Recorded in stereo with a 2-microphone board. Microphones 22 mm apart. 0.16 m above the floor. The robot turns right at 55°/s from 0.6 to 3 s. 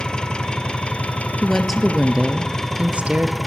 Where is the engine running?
40° left, 2.0 m; by 3.5 s 175° left, 2.0 m.